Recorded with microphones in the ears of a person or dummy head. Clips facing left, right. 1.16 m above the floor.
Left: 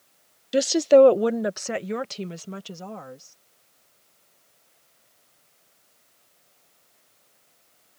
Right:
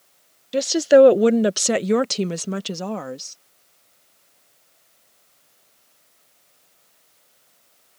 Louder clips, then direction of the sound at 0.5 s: Right 2 dB; 10° left (ahead or behind).